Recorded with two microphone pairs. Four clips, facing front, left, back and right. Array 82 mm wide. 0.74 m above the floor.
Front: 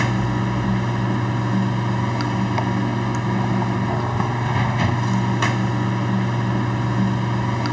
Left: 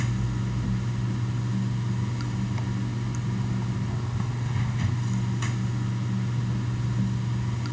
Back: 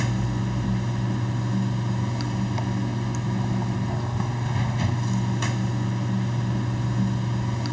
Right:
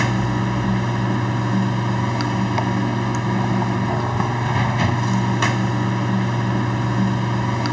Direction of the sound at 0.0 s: 45° right.